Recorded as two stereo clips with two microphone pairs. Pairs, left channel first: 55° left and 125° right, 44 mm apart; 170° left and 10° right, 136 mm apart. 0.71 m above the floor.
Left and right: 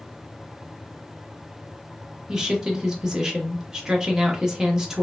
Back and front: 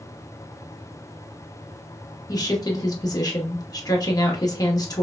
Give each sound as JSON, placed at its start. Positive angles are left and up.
{"t": 2.3, "sound": "a woman speaking", "azimuth_deg": 180, "distance_m": 0.7}